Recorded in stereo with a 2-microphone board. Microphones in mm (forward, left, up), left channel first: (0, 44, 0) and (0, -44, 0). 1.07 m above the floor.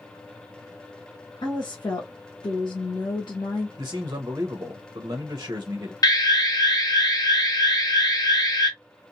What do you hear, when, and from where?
1.4 s a woman speaking: 55° left (ahead or behind), 1.0 m
3.8 s a man speaking: 40° right (ahead or behind), 0.7 m
6.0 s an alarm: 45° left (ahead or behind), 1.0 m